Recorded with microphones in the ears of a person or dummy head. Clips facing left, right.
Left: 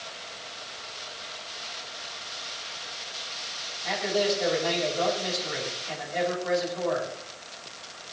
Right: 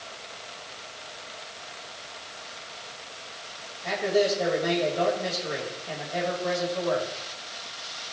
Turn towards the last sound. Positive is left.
turn(degrees=-75)  # may be behind; listen again after turning